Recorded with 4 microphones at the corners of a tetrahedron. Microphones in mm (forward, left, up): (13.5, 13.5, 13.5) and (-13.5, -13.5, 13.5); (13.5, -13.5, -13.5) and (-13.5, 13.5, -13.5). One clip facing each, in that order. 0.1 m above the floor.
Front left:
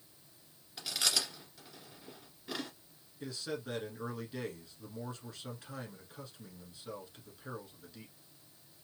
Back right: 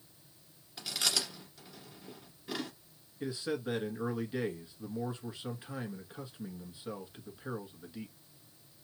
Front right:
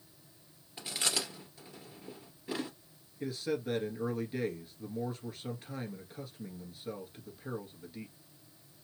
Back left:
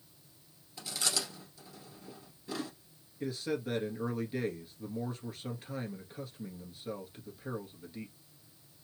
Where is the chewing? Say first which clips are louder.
Even, front right 1 dB; 45° right, 1.9 m.